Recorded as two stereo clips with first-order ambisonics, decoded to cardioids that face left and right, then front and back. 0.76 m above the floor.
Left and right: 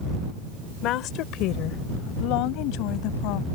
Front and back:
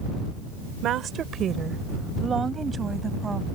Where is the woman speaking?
130° left; by 3.5 s 105° left.